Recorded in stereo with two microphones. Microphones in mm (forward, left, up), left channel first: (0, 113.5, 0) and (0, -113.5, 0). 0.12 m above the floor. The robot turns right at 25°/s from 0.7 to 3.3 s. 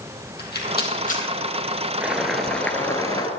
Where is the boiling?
10° right, 0.9 m; by 3.3 s 25° left, 0.9 m.